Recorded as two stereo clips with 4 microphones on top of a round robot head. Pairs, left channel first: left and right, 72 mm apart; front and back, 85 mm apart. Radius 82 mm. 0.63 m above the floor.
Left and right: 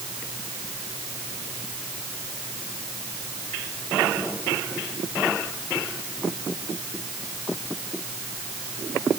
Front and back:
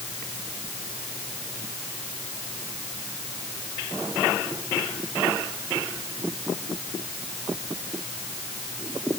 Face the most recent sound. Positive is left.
No sound to turn to.